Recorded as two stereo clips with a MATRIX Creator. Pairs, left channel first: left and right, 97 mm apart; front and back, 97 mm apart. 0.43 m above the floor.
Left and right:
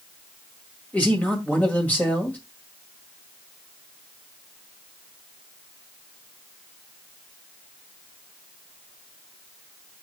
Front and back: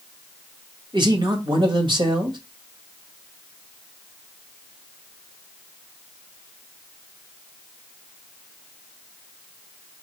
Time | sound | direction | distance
0.9 | a man speaking | 160° left | 1.8 m